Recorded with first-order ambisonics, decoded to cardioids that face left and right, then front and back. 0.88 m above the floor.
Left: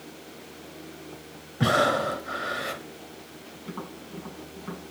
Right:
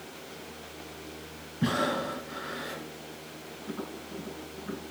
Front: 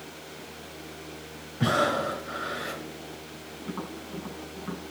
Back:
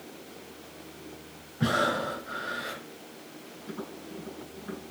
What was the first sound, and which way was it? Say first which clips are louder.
Breathing: left 7 dB, front 2 dB; 80° left.